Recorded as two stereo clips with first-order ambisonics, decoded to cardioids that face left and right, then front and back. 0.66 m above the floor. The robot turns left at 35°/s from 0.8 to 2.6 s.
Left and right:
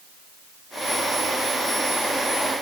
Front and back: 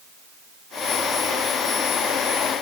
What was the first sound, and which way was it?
Only background noise.